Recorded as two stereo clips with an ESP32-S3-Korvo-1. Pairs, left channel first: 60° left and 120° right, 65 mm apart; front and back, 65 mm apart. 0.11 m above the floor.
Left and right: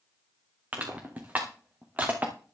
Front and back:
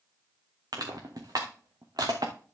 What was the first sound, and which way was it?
Crushing, 175° left.